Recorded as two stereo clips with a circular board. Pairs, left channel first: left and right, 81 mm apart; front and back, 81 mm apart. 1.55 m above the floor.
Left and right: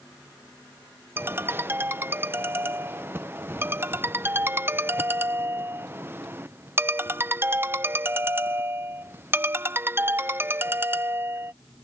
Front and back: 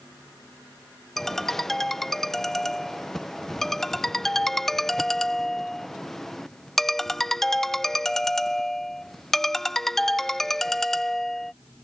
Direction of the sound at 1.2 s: 80° right.